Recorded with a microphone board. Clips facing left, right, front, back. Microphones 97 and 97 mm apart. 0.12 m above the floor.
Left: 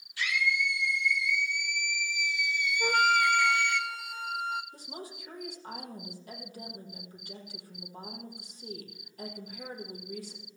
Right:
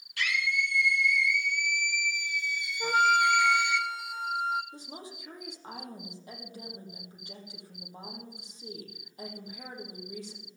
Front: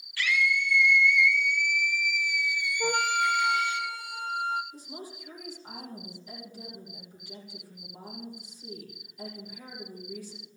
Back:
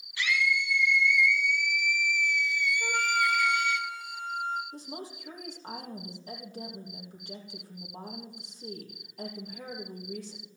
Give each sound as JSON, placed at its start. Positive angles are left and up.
{"t": 0.2, "sound": "a scream", "azimuth_deg": -110, "distance_m": 3.0}
{"t": 2.8, "sound": "a flute", "azimuth_deg": 0, "distance_m": 0.7}
{"t": 4.7, "sound": "a woman speaking", "azimuth_deg": -155, "distance_m": 4.5}